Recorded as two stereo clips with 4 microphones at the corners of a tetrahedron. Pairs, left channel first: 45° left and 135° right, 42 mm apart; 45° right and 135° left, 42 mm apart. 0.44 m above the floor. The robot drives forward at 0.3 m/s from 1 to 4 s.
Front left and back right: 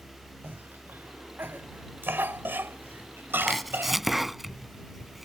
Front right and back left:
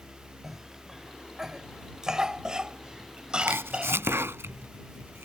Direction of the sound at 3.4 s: 130° left.